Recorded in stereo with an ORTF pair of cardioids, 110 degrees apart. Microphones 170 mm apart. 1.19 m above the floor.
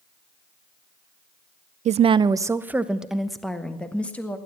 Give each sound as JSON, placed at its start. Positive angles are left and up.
{"t": 1.9, "sound": "a woman speaking", "azimuth_deg": -45, "distance_m": 0.5}